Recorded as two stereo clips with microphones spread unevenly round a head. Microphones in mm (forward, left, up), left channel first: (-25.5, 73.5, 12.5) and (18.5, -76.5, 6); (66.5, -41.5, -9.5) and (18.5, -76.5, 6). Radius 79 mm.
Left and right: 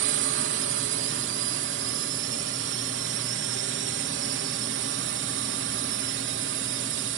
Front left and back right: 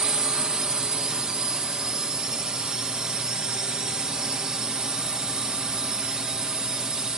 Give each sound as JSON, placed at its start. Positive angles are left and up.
{"t": 0.0, "sound": "a drone", "azimuth_deg": -65}